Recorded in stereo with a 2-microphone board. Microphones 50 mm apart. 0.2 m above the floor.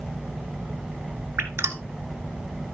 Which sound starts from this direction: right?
Dripping, at 1.4 s.